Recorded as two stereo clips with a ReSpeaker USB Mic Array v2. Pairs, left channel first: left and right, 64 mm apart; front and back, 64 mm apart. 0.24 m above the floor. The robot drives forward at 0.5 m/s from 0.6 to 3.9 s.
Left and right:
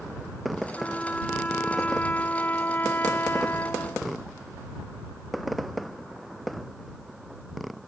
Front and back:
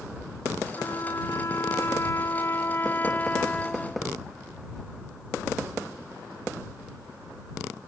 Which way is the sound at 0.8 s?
25° left.